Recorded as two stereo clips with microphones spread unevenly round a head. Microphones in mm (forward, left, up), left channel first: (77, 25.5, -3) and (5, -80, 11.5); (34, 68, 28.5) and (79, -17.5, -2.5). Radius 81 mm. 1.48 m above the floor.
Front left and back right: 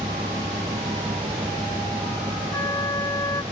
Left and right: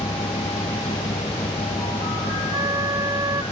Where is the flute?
10° right.